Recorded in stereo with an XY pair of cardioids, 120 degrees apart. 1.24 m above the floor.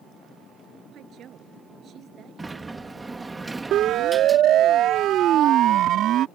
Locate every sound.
0.9 s a woman speaking: 50° right; by 3.4 s 45° right
2.4 s a sliding door: 10° right
3.7 s a siren: 60° right